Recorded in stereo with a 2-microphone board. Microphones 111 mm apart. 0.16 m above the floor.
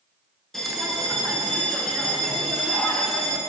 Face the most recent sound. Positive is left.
turn(degrees=5)  # may be behind; listen again after turning